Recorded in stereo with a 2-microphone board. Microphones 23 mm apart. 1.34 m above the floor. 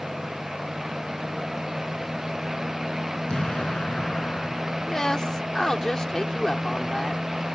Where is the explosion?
45° left (ahead or behind).